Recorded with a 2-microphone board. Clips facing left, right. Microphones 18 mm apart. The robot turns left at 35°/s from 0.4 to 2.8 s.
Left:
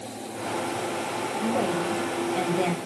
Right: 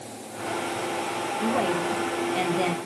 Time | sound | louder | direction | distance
1.4 | a woman speaking | right 1 dB | 120° right | 1.6 m